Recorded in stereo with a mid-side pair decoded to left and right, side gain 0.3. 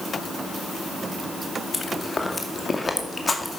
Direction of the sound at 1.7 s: 35° left.